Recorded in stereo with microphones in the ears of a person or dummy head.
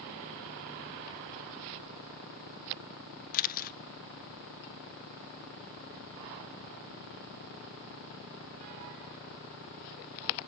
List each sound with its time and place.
3.3 s a camera shutter: 45° left (ahead or behind), 0.6 m